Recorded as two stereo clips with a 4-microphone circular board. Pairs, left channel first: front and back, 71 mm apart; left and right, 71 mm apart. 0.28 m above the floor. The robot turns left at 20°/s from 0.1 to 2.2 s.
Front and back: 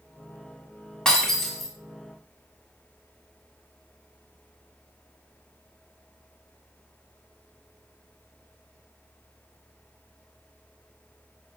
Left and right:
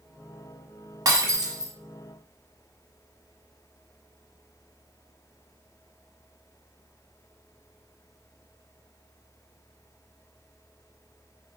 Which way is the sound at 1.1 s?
75° right.